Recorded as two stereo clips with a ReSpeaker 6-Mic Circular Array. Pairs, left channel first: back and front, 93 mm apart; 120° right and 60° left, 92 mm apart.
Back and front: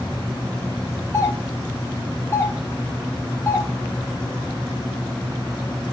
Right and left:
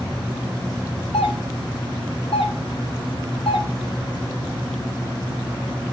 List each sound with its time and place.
1.1 s a doorbell: 120° right, 4.5 m